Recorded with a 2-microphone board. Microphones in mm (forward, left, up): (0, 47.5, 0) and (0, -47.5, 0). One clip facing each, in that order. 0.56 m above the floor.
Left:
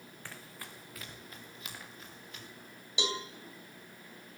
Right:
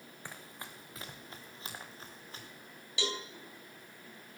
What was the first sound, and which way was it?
Running footsteps, 15° right (ahead or behind).